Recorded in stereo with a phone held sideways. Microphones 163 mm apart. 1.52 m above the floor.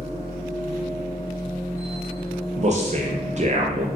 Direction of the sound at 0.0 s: 20° left (ahead or behind).